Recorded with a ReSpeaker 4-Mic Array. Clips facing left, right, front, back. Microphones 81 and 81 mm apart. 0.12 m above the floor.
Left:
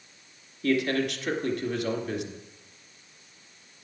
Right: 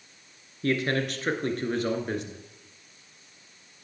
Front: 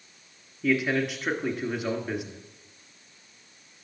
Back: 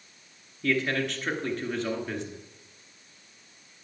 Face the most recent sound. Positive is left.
turn(degrees=-75)